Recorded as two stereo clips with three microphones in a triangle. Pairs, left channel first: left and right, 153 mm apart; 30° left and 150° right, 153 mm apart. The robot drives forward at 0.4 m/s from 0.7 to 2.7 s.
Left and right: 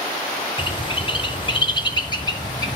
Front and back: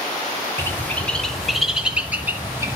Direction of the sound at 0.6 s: 95° left.